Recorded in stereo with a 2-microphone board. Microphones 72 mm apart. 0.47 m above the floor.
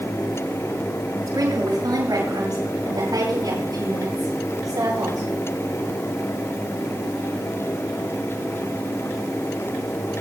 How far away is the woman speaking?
About 7 m.